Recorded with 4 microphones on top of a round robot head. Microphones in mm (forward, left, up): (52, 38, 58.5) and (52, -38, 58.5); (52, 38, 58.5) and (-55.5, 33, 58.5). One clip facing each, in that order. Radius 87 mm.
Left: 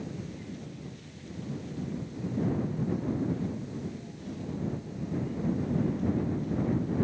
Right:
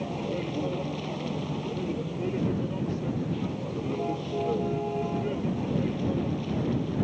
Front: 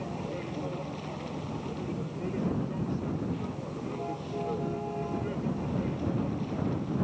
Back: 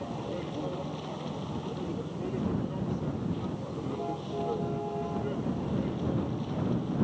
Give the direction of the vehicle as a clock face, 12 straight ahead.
3 o'clock.